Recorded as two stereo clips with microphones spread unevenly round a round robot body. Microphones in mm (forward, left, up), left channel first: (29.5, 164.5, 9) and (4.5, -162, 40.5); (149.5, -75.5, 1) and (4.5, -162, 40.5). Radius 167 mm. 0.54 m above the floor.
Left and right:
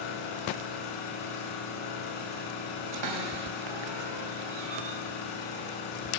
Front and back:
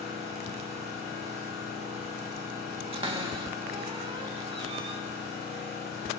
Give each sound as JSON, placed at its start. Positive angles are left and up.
{"t": 0.0, "sound": "an engine running", "azimuth_deg": 80, "distance_m": 4.5}
{"t": 2.9, "sound": "a cupboard door", "azimuth_deg": -90, "distance_m": 3.0}